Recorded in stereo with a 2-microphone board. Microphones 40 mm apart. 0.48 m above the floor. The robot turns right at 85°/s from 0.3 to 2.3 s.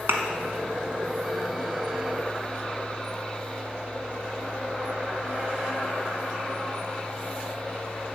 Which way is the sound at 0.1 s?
80° right.